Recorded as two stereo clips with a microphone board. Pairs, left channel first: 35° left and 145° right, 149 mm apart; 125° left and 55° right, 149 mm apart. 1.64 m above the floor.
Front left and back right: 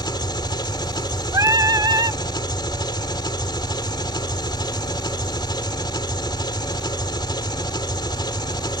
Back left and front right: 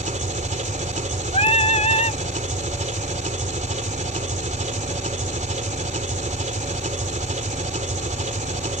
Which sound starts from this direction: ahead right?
An engine running, at 0.0 s.